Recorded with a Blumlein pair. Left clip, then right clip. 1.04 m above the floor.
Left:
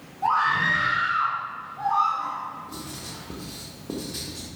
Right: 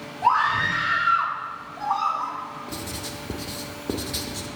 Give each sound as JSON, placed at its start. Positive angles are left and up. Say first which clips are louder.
{"t": 0.2, "sound": "a scream", "louder": "right 1 dB", "azimuth_deg": -60, "distance_m": 3.0}
{"t": 2.7, "sound": "writing", "louder": "right 4 dB", "azimuth_deg": -50, "distance_m": 0.9}